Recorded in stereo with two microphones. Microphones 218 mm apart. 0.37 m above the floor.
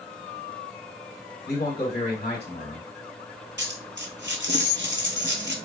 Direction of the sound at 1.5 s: 50° left (ahead or behind).